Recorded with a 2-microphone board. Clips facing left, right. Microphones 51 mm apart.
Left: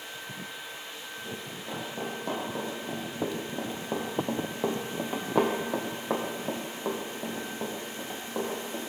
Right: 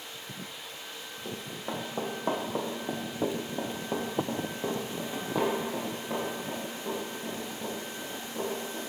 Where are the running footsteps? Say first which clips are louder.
Right 3 dB; 45° right (ahead or behind), 2 m; by 8.8 s 75° left (ahead or behind), 3 m.